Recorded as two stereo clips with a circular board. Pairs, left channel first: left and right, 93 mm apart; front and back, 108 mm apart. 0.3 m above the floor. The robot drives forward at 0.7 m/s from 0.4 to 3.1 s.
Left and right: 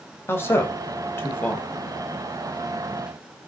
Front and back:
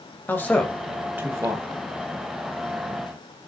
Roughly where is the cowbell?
I don't hear a cowbell.